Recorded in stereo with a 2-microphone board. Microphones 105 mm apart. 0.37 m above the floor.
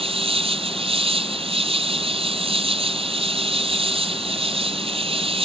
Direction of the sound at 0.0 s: 65° right (ahead or behind).